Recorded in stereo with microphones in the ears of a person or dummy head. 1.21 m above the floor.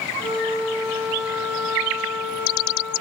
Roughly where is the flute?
Centre.